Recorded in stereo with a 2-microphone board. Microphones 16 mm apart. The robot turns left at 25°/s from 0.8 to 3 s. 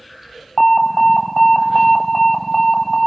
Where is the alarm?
20° left (ahead or behind), 2 m; by 3.1 s 30° left (ahead or behind), 2 m.